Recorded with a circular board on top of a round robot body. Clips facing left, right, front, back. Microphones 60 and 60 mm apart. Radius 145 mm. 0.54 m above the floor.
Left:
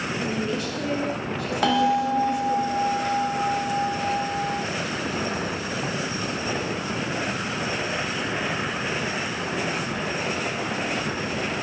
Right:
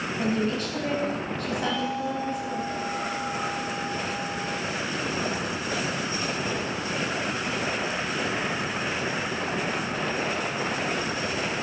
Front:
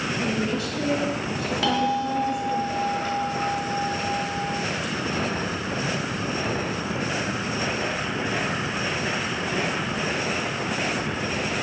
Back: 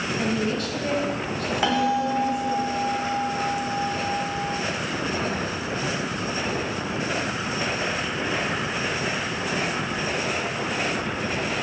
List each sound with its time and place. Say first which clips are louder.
0.2 s a woman speaking: right 3 dB, back 2 dB; 135° right, 4.5 m
1.6 s a bell: left 10 dB, back 1 dB; 110° left, 1.3 m